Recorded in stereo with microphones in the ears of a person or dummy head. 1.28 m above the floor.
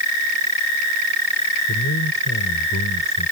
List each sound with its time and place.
1.7 s a man speaking: 65° left (ahead or behind)